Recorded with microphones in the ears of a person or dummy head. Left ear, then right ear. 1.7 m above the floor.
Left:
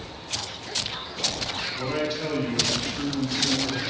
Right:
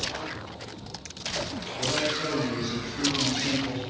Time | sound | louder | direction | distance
1.8 | a man speaking | right 5 dB | centre (ahead or behind) | 2 m